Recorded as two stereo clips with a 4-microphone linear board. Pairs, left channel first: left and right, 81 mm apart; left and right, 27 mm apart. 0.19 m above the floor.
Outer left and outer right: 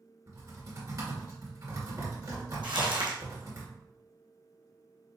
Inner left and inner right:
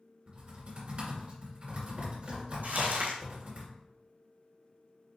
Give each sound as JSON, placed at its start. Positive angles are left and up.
{"t": 0.3, "sound": "typing on a keyboard", "side_deg": -45, "distance_m": 2.5}
{"t": 2.6, "sound": "crumpling", "side_deg": -85, "distance_m": 1.4}